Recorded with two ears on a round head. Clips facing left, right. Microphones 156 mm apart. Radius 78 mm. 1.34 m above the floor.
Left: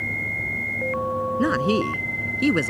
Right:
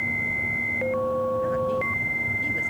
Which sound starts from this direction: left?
A woman speaking, at 1.4 s.